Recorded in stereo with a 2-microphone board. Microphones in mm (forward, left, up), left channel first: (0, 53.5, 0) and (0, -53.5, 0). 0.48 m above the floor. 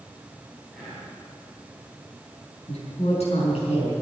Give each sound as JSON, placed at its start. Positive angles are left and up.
{"t": 0.7, "sound": "whispering", "side_deg": 0, "distance_m": 3.5}
{"t": 2.7, "sound": "a woman speaking", "side_deg": 80, "distance_m": 5.0}